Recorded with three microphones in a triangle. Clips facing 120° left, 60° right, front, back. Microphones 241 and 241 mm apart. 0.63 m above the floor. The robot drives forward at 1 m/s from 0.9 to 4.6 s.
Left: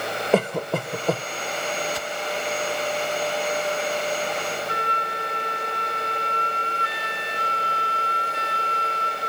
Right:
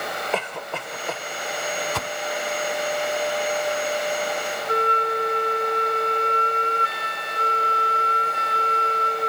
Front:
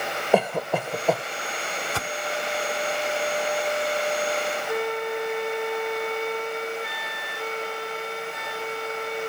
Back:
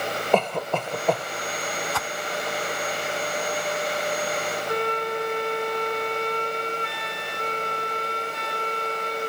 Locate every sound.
0.3 s a cough: 80° left; by 1.2 s 85° left
1.9 s a whoosh: 55° right; by 2.1 s 60° right
4.7 s a flute: 85° right